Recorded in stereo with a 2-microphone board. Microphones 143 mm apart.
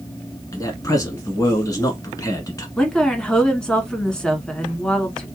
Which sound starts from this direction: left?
A man speaking, at 0.5 s.